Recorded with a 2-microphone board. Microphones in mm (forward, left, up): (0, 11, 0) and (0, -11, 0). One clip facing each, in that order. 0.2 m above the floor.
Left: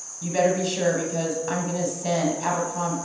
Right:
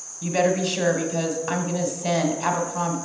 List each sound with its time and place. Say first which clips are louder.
0.2 s a woman speaking: right 1 dB; 15° right (ahead or behind), 1.0 m